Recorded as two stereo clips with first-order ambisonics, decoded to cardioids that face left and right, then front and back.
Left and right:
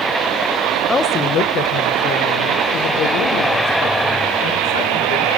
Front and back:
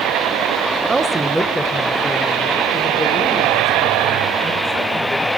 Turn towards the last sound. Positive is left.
turn(degrees=75)